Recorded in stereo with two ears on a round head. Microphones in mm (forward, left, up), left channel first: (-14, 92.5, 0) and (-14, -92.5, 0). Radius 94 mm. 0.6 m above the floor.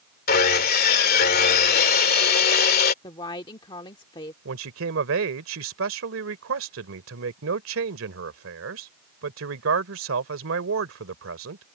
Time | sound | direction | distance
0.3 | sawing | 45° left (ahead or behind) | ?
3.0 | a woman speaking | 25° left (ahead or behind) | ?
4.5 | a man speaking | 70° right (ahead or behind) | ?